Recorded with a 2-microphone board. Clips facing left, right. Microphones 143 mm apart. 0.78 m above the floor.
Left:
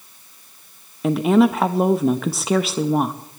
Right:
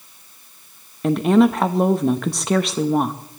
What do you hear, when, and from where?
1.0 s a woman speaking: centre (ahead or behind), 0.6 m